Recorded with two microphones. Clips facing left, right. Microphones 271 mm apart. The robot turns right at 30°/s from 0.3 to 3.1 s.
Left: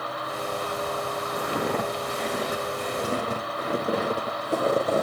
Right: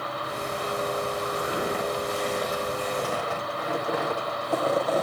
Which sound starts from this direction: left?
Footsteps, at 1.4 s.